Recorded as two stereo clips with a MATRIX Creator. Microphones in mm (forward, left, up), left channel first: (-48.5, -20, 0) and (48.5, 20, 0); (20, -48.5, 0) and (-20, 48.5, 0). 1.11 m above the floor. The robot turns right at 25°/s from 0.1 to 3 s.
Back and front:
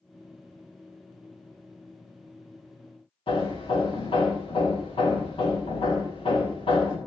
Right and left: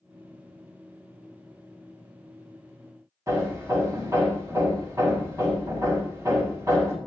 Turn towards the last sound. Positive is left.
turn(degrees=170)